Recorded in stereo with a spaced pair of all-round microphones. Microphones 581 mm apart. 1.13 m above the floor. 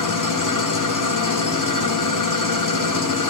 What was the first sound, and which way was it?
An engine running, 35° left (ahead or behind).